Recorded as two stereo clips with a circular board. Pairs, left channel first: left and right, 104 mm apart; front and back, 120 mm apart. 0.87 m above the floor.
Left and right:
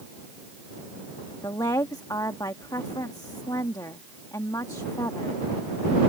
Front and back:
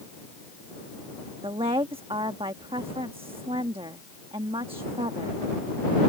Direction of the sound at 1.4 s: 140° left.